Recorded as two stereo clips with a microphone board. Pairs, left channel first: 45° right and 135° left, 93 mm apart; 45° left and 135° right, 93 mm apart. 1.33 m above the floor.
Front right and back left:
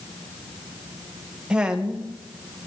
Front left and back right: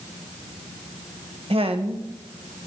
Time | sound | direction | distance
1.5 | a woman speaking | 145° right | 1.3 m